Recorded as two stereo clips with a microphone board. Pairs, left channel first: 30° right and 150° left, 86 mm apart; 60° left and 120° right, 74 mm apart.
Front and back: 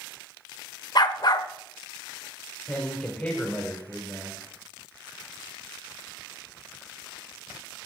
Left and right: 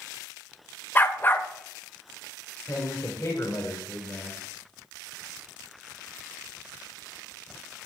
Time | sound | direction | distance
0.9 | a dog barking | straight ahead | 0.6 m
2.7 | a man speaking | 40° left | 1.8 m